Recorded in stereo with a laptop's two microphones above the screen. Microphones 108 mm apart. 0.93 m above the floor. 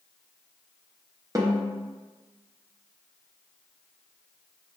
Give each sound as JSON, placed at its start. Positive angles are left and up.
{"t": 1.4, "sound": "a snare drum", "side_deg": -30, "distance_m": 0.6}